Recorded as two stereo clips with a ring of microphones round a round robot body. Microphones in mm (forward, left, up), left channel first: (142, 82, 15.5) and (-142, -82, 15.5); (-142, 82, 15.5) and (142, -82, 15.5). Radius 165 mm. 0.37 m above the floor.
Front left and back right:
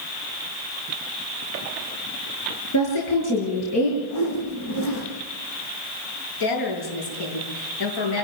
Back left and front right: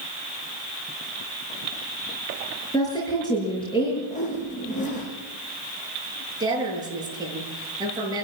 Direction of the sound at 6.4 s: 50° left.